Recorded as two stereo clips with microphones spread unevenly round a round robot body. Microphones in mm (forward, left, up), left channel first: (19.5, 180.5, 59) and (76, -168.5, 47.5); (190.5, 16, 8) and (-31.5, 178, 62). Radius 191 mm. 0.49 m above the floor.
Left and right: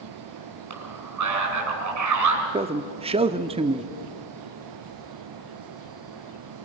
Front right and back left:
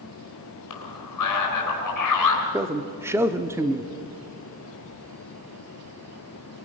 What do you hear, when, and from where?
0.7 s a man speaking: 40° right, 4.5 m
2.5 s a man speaking: 125° right, 0.7 m